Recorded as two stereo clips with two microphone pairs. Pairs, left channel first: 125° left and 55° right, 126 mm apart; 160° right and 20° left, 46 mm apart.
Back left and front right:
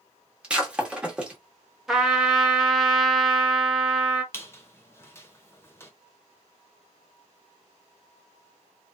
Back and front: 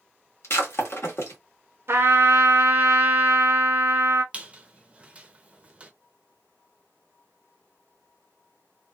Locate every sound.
0.4 s breaking glass: 135° right, 1.1 m
1.9 s a trumpet: 35° left, 0.7 m
4.3 s a squeak: 65° left, 0.6 m